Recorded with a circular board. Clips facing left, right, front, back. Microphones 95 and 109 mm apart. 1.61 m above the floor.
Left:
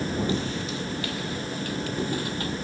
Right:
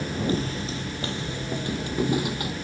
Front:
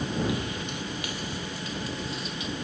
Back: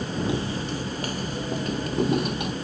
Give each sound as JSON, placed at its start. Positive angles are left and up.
{"t": 0.3, "sound": "footsteps", "azimuth_deg": -125}